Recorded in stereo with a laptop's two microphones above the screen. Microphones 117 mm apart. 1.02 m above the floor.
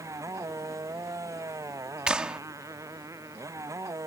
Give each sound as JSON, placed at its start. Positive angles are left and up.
{"t": 0.0, "sound": "a motorcycle", "side_deg": -25}
{"t": 2.1, "sound": "a clap", "side_deg": -10}